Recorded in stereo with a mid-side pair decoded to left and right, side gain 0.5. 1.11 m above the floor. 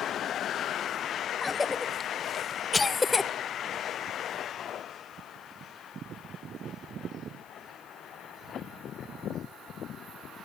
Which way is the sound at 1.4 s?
20° left.